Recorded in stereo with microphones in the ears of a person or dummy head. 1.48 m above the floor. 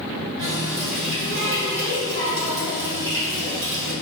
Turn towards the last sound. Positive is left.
turn(degrees=-70)  # may be behind; listen again after turning